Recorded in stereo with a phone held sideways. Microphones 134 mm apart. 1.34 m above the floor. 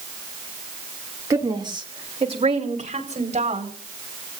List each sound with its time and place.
1.3 s a woman speaking: 25° right (ahead or behind), 2.5 m; by 3.7 s 60° right (ahead or behind), 5.5 m